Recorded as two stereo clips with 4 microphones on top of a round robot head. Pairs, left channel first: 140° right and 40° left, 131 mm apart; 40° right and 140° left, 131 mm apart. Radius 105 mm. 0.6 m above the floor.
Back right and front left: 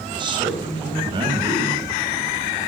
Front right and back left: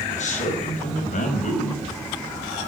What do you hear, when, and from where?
0.1 s a man speaking: 15° right, 4.5 m